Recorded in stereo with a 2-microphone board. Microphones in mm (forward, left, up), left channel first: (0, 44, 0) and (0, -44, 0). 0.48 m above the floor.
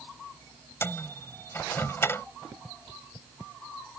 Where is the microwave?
30° left (ahead or behind).